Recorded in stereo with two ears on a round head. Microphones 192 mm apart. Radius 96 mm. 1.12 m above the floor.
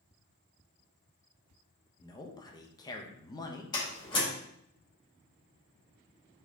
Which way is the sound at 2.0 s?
20° left (ahead or behind).